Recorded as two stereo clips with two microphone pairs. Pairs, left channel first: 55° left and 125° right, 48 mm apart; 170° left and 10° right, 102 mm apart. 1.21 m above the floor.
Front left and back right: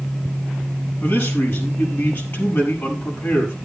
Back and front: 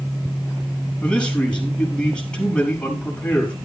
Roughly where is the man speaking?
Left.